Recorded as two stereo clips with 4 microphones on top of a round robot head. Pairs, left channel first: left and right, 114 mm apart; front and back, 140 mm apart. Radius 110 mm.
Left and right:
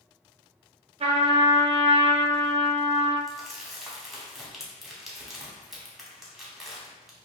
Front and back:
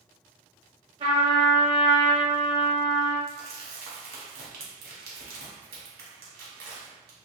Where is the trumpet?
125° right, 0.8 m.